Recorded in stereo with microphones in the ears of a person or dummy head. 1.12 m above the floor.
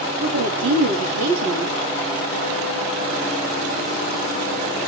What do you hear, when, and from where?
0.2 s a woman speaking: 75° right (ahead or behind), 2.5 m